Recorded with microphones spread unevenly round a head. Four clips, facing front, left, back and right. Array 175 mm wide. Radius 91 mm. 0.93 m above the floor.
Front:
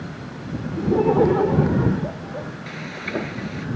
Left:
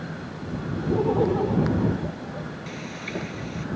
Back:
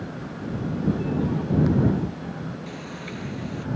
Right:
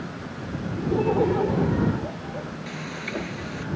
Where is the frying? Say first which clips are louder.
Right 1 dB, front 4 dB; 5° right.